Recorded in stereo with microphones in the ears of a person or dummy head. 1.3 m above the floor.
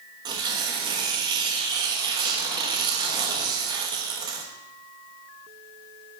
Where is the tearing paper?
25° right (ahead or behind), 1.0 m.